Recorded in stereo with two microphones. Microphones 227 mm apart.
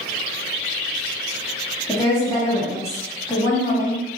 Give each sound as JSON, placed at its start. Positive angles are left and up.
{"t": 1.9, "sound": "a woman speaking", "side_deg": 15, "distance_m": 1.8}